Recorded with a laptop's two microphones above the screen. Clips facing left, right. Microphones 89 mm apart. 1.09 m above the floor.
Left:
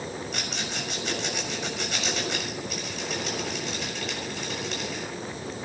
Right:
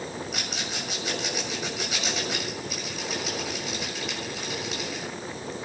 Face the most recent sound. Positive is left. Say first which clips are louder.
# left 1 dB
turn(degrees=-5)  # may be behind; listen again after turning